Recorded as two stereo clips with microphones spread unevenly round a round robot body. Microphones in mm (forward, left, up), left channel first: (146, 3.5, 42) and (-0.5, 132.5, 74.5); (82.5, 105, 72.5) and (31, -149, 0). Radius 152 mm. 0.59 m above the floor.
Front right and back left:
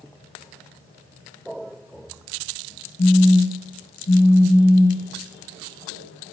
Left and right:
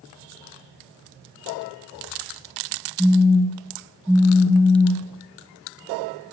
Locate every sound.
3.0 s a phone buzzing: 5° right, 3.5 m